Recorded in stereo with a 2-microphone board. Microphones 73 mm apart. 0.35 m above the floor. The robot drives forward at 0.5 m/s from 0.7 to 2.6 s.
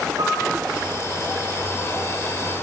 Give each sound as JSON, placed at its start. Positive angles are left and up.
{"t": 0.2, "sound": "a piano", "side_deg": -50, "distance_m": 2.0}